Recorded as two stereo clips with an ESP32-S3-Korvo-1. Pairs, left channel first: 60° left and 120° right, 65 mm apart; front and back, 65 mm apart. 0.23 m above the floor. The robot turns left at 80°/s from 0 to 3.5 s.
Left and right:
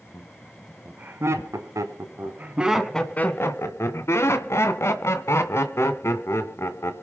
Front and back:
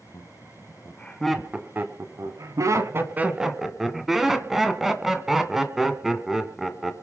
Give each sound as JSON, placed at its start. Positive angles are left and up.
{"t": 0.1, "sound": "laughter", "azimuth_deg": 5, "distance_m": 2.0}